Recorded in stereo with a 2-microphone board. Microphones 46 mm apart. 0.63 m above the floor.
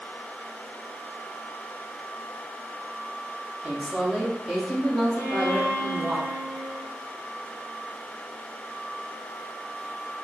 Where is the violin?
30° right (ahead or behind), 1.6 m.